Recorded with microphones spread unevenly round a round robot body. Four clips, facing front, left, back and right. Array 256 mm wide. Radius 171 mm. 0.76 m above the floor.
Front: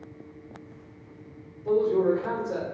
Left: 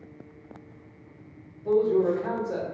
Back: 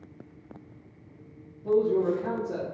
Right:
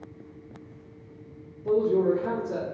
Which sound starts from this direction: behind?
A man speaking, at 1.6 s.